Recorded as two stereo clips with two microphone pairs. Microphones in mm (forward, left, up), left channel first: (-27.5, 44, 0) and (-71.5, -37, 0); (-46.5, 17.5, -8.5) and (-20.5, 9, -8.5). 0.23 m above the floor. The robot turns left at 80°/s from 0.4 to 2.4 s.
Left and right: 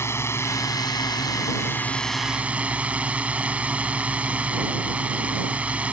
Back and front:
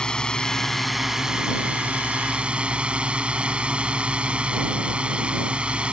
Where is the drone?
110° left; by 5.9 s 50° right.